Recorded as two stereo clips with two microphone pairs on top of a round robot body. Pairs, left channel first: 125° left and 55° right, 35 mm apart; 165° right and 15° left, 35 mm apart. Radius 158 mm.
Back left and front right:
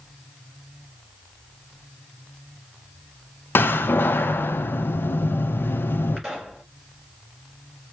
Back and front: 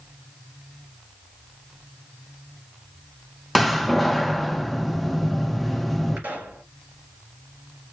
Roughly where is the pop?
Ahead left.